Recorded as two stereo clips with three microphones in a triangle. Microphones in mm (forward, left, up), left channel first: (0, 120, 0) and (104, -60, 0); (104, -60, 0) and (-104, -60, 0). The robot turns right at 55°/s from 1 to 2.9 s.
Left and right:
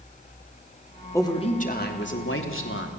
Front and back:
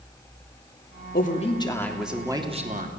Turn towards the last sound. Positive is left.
turn(degrees=140)